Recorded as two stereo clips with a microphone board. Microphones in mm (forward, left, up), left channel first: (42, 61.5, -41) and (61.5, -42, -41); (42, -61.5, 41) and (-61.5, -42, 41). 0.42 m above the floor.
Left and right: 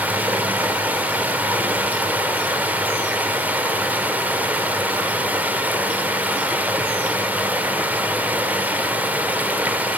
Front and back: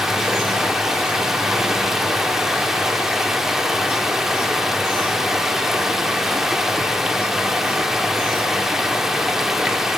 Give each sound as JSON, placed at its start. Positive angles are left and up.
{"t": 0.0, "sound": "running water", "azimuth_deg": -110, "distance_m": 1.1}